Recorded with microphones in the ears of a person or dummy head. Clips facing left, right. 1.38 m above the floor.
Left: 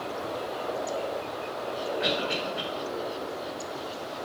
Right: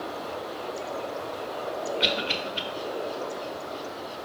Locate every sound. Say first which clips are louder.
2.0 s a cough: left 1 dB; 45° right (ahead or behind), 1.6 m